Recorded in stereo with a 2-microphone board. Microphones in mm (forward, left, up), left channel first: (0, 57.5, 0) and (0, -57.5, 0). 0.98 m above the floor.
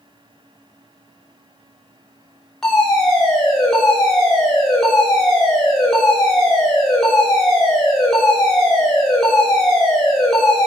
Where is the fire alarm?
5° left (ahead or behind), 4.5 m.